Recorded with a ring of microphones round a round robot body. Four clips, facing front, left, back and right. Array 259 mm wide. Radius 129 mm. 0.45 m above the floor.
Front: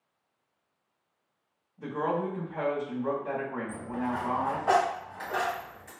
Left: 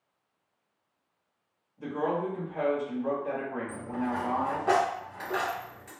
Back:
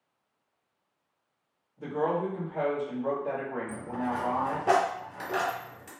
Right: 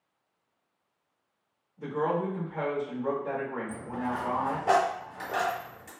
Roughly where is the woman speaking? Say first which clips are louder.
Right 1 dB, back 1 dB; behind right.